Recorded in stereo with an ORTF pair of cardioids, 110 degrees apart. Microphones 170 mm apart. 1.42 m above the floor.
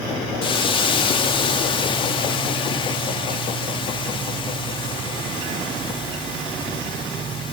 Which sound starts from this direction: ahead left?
A hiss, at 0.4 s.